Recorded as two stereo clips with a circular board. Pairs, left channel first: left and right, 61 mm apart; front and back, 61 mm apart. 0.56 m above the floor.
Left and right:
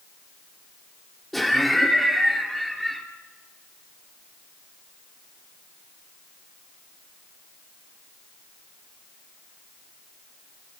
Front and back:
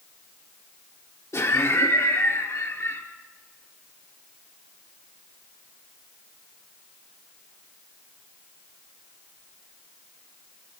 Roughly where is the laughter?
Ahead.